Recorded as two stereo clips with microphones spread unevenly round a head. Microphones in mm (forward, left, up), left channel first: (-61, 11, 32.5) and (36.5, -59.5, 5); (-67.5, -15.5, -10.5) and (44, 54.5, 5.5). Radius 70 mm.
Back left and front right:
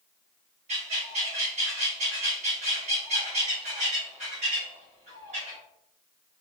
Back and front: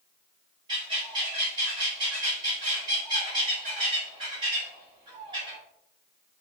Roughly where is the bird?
Ahead.